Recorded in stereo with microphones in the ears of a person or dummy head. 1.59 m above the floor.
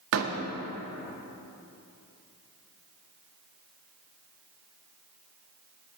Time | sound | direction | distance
0.1 | a door slam | 65° right (ahead or behind) | 1.7 m